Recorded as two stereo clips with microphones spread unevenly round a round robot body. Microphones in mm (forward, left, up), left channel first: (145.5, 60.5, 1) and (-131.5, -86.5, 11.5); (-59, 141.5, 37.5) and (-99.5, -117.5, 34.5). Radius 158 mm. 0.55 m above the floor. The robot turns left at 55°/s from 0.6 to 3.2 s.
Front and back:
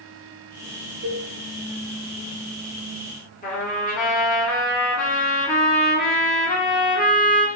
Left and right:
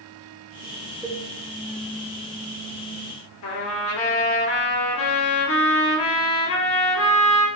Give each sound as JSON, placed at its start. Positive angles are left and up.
{"t": 1.0, "sound": "a cowbell", "azimuth_deg": 175, "distance_m": 0.8}
{"t": 3.4, "sound": "a trumpet", "azimuth_deg": 95, "distance_m": 1.5}